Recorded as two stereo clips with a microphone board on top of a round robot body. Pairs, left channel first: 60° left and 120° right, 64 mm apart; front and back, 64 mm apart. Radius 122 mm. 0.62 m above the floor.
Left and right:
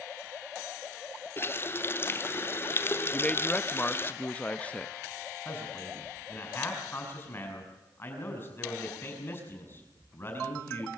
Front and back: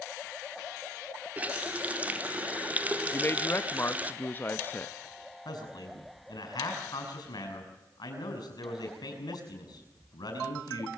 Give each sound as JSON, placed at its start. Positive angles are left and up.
{"t": 1.4, "sound": "a running tap", "azimuth_deg": 110, "distance_m": 1.2}
{"t": 3.1, "sound": "a man speaking", "azimuth_deg": 10, "distance_m": 1.0}
{"t": 5.5, "sound": "a man speaking", "azimuth_deg": 5, "distance_m": 6.5}